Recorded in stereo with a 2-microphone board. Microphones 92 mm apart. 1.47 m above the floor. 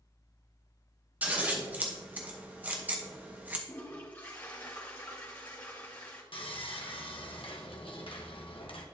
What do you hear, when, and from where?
1.2 s scissors: 15° right (ahead or behind), 1.0 m
3.7 s a toilet flushing: 25° left (ahead or behind), 2 m
6.3 s sawing: 75° left (ahead or behind), 1.1 m